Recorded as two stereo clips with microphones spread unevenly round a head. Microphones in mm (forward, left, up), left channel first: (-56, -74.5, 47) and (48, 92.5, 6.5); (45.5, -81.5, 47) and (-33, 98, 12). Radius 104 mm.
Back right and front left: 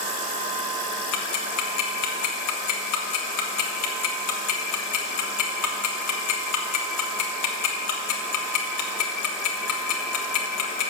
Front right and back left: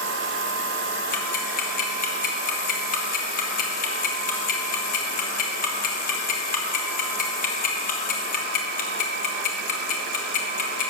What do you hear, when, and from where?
1.1 s ticking: 115° right, 1.5 m